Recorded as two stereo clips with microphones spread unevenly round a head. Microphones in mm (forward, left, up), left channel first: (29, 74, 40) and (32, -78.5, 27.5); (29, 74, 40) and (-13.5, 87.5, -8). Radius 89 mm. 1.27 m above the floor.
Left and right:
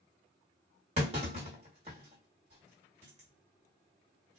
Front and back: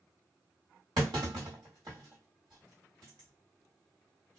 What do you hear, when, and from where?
1.0 s a clunk: 140° right, 1.3 m